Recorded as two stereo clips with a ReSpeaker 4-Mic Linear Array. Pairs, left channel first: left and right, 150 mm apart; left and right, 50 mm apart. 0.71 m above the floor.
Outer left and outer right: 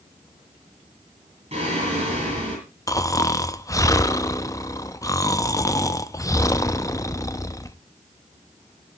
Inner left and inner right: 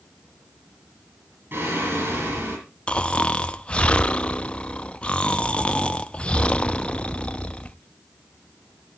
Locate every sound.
1.5 s singing: 50° right (ahead or behind), 9 m
2.9 s snoring: 20° left (ahead or behind), 0.5 m